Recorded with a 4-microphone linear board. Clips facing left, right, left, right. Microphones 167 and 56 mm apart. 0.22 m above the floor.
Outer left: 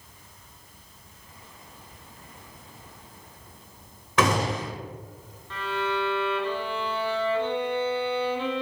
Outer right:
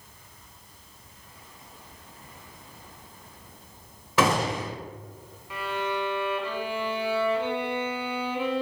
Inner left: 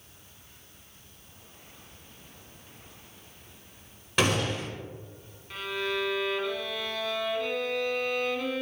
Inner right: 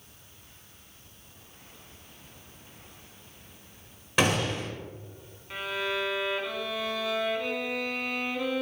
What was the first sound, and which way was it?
A gunshot, 5° right (ahead or behind).